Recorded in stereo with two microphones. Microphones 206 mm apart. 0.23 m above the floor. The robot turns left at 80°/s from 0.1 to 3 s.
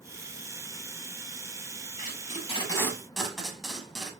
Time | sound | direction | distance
2.0 | tape being pulled | 45° left (ahead or behind) | 1.0 m